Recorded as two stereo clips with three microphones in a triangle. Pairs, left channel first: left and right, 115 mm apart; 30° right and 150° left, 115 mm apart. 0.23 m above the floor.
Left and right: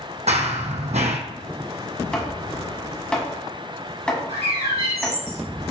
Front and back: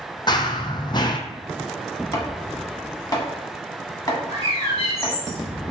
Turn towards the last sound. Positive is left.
turn(degrees=-65)